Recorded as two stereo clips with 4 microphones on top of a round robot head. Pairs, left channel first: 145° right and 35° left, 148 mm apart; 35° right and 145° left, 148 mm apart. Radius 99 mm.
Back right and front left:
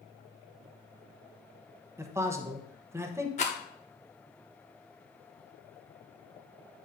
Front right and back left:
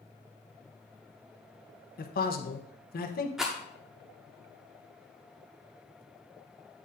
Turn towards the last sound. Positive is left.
turn(degrees=-125)